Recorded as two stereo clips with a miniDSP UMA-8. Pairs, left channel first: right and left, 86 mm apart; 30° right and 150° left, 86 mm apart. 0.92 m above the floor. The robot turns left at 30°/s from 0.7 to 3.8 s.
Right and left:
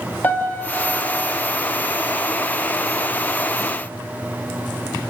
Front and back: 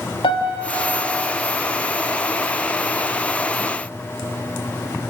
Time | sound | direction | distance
0.2 | a piano | 25° right | 1.9 m